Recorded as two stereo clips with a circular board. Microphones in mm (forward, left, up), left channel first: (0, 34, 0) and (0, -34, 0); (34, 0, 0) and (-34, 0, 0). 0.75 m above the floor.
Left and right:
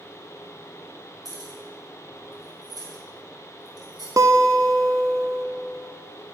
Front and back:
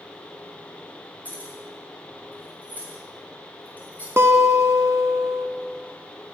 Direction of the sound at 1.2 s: 70° right.